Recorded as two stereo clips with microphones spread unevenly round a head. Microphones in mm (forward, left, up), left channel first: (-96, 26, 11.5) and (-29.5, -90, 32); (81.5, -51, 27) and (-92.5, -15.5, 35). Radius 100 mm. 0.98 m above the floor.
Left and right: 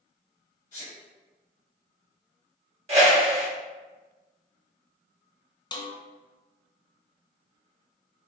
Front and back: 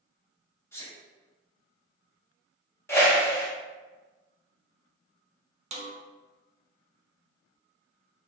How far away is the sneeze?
About 1.9 m.